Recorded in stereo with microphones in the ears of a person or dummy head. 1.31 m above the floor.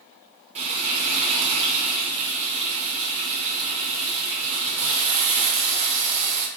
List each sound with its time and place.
0.6 s frying: 35° right (ahead or behind), 0.8 m